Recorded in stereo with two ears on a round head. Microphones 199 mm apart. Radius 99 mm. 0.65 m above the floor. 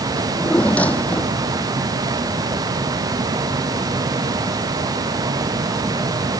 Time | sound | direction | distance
0.2 | a drawer | 5° left (ahead or behind) | ?